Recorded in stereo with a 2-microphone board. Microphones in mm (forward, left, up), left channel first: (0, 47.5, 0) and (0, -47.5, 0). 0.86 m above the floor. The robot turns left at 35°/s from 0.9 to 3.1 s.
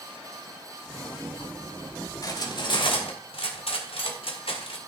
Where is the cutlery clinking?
35° left (ahead or behind), 1.8 m; by 4.8 s 65° left (ahead or behind), 1.8 m.